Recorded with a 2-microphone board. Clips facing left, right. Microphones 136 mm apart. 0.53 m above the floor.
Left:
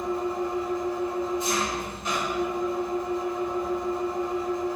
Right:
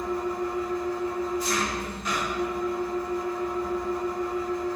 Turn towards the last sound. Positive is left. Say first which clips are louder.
# left 1 dB
turn(degrees=25)  # may be behind; listen again after turning